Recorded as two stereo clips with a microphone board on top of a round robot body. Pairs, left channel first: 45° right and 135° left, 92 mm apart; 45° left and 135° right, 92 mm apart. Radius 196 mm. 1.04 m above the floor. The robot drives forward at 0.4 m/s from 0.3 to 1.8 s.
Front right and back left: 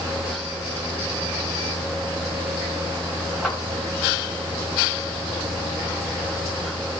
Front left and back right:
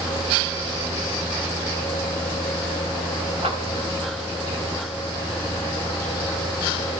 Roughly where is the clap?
Behind right.